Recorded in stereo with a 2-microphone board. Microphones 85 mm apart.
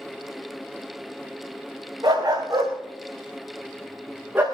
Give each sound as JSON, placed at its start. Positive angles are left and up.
{"t": 2.0, "sound": "a dog barking", "side_deg": -50, "distance_m": 5.0}